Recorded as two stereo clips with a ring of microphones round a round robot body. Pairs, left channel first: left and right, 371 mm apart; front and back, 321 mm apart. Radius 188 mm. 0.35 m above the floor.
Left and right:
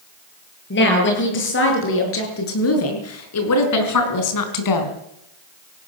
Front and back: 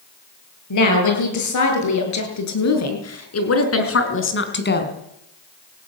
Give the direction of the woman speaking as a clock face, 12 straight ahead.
11 o'clock.